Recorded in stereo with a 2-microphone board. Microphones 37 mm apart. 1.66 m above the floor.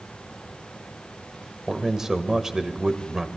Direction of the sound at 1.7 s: 15° right (ahead or behind).